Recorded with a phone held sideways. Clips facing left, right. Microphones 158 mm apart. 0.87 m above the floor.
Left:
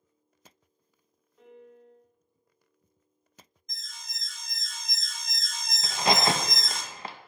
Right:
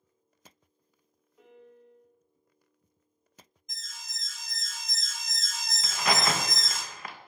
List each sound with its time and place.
1.4 s a piano: 5° right (ahead or behind), 1.6 m
3.7 s an alarm: centre (ahead or behind), 0.7 m
5.8 s a crack: 30° left (ahead or behind), 0.5 m